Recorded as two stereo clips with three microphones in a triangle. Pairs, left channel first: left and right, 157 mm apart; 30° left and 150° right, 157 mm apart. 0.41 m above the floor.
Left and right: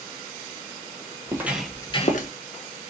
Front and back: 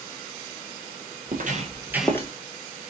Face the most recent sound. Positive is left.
turn(degrees=90)